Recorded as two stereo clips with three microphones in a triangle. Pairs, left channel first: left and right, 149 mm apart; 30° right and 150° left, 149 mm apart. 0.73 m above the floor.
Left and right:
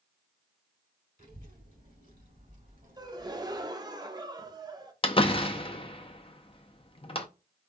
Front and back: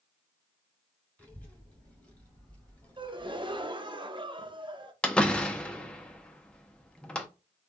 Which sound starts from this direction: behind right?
A gasp, at 3.0 s.